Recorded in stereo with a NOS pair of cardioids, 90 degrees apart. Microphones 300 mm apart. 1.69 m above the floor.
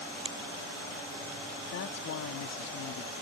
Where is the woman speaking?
65° left.